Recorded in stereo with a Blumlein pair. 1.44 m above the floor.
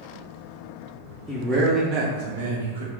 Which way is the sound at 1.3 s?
5° right.